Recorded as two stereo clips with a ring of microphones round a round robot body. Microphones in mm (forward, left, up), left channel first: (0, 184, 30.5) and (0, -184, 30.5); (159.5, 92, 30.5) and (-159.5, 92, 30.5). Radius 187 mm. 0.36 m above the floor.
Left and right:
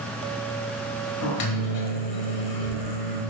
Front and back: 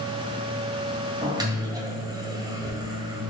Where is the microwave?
105° left, 1.7 m.